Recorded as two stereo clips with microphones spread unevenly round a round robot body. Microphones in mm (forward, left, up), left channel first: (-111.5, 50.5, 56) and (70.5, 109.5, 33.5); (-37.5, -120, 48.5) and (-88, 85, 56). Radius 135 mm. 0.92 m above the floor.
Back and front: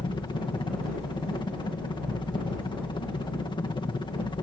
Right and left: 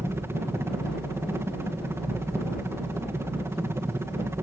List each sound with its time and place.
0.0 s a helicopter: 165° left